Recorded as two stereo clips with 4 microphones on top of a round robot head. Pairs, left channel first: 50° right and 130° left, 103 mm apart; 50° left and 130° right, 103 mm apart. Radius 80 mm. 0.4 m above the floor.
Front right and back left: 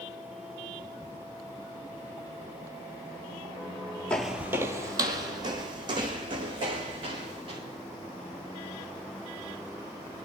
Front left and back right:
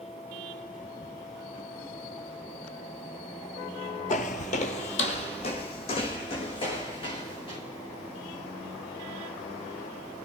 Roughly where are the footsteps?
Ahead left.